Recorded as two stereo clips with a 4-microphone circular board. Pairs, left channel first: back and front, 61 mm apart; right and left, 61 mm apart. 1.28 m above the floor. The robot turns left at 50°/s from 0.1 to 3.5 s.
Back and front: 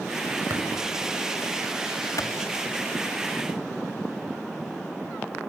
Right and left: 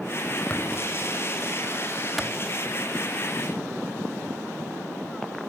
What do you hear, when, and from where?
0.5 s tapping: 20° right, 7 m; by 0.6 s 25° right, 7 m
2.2 s a clap: 175° right, 2.5 m; by 2.3 s 175° left, 2.5 m